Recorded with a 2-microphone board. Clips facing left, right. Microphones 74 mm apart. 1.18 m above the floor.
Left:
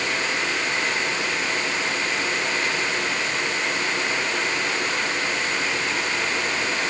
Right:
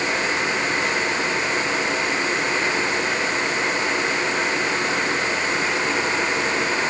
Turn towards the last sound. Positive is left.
No sound to turn to.